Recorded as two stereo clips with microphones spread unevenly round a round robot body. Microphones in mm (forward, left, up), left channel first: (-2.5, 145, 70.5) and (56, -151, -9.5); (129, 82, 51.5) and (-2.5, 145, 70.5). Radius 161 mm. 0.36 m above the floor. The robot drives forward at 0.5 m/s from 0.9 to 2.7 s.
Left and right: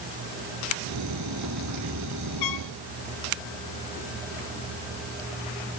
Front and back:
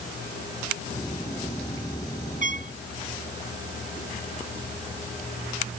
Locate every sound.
2.4 s a trumpet: 125° left; by 2.7 s 130° left